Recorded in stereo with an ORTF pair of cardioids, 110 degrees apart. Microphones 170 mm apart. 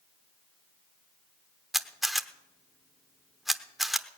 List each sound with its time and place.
1.7 s a camera shutter: straight ahead, 0.8 m